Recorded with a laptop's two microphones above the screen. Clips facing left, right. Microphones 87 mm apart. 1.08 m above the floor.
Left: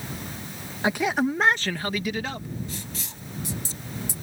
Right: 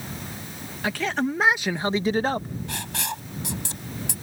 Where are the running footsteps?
I don't hear running footsteps.